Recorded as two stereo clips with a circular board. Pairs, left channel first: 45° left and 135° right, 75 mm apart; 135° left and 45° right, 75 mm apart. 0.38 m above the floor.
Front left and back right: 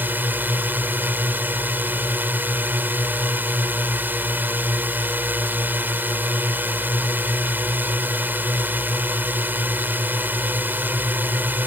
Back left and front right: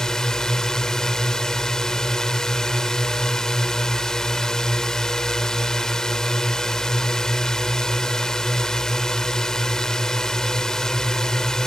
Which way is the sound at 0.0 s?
150° right.